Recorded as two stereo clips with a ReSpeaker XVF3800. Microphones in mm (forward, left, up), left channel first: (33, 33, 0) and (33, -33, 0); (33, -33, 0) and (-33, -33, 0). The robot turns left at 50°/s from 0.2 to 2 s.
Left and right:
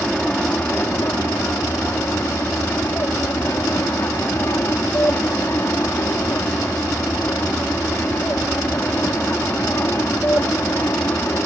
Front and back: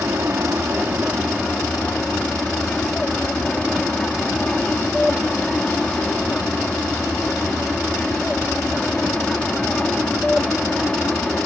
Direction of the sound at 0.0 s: 160° left.